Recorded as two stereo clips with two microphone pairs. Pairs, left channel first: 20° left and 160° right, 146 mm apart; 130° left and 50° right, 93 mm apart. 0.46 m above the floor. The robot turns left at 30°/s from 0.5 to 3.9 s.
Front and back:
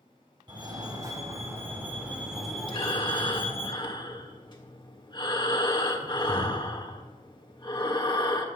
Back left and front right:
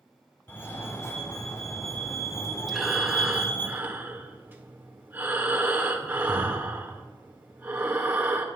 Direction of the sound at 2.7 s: 35° left.